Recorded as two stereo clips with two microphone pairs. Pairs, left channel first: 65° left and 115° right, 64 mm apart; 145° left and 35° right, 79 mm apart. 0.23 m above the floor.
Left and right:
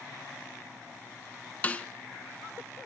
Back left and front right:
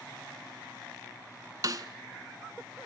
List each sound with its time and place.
1.6 s a snare drum: 5° left, 1.1 m